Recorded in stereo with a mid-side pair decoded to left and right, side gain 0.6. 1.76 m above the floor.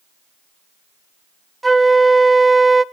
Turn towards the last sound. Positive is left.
turn(degrees=-15)